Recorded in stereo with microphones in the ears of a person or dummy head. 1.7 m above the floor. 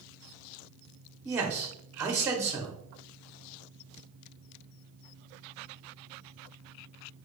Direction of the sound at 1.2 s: 10° right (ahead or behind).